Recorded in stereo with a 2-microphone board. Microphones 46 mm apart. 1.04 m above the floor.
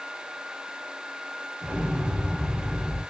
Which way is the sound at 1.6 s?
40° right (ahead or behind).